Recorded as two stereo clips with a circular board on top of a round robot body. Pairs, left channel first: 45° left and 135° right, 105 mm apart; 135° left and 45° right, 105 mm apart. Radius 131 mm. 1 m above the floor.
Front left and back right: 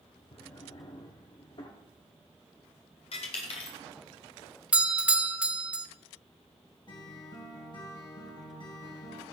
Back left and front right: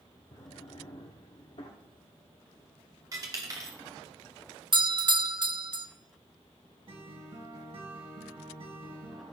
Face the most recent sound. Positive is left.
turn(degrees=-5)